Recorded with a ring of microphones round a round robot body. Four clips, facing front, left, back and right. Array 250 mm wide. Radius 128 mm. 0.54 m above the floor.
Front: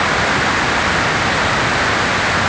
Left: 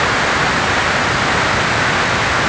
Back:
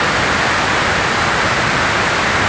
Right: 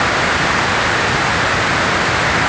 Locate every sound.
Only background noise.